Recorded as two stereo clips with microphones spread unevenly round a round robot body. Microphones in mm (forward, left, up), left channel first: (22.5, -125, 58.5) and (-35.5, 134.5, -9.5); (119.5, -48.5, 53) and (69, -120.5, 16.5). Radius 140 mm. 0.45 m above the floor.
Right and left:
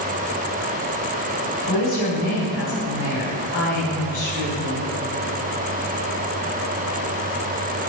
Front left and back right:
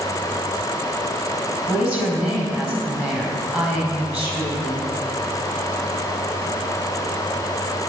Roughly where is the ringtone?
I don't hear a ringtone.